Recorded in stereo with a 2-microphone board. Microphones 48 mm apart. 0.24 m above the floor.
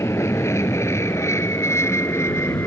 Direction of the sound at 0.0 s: 70° left (ahead or behind).